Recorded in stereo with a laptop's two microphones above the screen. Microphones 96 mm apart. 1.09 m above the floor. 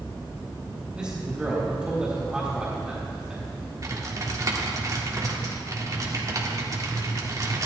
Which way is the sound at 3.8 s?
40° right (ahead or behind).